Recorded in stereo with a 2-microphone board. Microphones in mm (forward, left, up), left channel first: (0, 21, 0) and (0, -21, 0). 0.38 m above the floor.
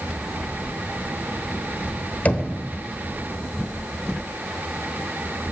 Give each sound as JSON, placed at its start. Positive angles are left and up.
{"t": 2.2, "sound": "knocking", "side_deg": 40, "distance_m": 0.9}